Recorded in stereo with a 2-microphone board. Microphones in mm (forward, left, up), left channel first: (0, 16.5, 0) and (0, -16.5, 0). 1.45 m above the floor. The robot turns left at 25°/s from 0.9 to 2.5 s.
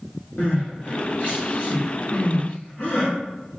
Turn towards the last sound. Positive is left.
turn(degrees=60)  # may be behind; listen again after turning